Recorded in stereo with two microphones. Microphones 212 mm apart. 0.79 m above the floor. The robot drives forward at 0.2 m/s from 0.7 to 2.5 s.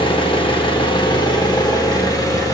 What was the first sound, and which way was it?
An engine running, 25° left (ahead or behind).